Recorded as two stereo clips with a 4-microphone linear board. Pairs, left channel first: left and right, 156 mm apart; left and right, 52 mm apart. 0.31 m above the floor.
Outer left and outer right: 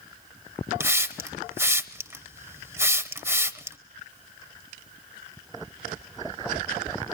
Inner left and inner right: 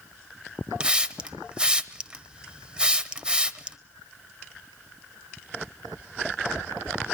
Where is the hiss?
15° right (ahead or behind), 0.8 m.